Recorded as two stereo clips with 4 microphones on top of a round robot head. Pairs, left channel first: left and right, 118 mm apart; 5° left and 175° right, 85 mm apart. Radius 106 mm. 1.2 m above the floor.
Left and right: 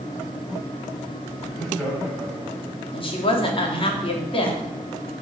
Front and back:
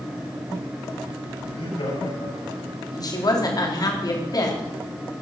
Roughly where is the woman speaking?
Ahead left.